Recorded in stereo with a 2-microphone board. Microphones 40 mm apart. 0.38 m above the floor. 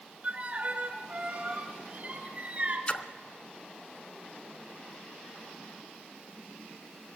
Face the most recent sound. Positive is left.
turn(degrees=40)  # may be behind; listen again after turning